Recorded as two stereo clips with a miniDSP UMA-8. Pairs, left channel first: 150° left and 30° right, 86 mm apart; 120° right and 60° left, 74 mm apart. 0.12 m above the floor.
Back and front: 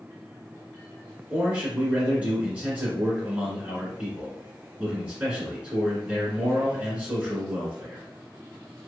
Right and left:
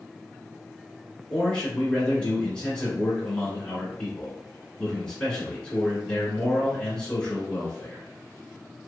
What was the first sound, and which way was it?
A man speaking, 70° right.